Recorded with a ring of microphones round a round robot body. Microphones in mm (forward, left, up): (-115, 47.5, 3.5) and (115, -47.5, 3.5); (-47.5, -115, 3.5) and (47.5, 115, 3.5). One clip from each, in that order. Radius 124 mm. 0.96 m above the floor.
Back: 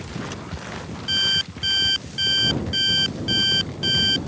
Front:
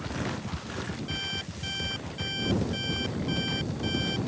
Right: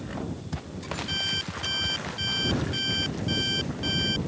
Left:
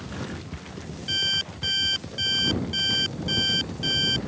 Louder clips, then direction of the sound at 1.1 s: Back 16 dB, left 5 dB; 135° left.